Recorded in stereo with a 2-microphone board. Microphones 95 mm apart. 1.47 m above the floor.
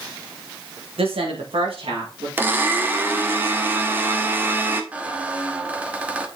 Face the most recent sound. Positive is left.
turn(degrees=-15)  # may be behind; listen again after turning